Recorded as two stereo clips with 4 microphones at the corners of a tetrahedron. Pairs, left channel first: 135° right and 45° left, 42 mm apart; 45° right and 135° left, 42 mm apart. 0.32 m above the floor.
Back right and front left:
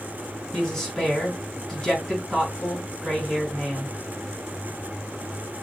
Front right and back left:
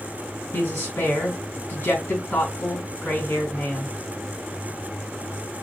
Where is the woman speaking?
50° right, 3 m.